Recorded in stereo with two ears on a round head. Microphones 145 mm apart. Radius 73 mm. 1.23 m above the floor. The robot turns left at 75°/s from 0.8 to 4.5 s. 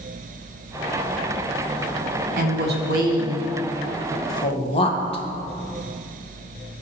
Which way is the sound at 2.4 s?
55° right (ahead or behind).